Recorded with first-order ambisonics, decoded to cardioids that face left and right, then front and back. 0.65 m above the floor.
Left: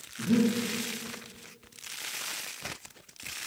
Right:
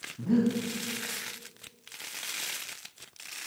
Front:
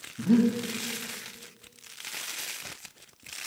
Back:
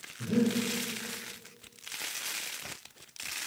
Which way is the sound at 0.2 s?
15° right.